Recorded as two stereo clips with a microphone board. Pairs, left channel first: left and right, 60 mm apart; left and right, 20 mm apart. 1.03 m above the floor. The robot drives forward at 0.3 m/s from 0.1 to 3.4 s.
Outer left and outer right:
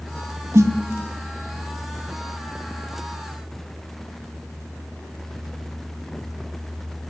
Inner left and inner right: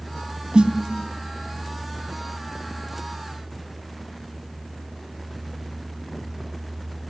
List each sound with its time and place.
0.5 s a snare drum: 65° right (ahead or behind), 1.7 m